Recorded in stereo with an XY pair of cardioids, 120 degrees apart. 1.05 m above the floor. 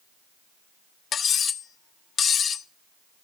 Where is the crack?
I don't hear a crack.